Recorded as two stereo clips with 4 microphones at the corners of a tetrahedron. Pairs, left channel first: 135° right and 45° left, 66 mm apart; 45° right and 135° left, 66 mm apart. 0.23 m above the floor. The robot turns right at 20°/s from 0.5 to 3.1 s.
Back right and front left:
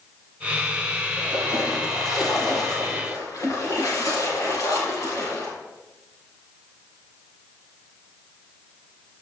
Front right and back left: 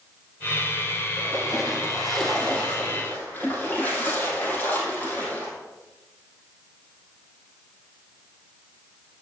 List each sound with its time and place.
1.2 s a splash: 145° right, 3.5 m; by 5.5 s 110° right, 3.5 m